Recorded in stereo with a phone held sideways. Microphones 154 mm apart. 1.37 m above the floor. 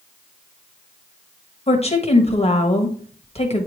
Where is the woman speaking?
40° left (ahead or behind), 1.5 m.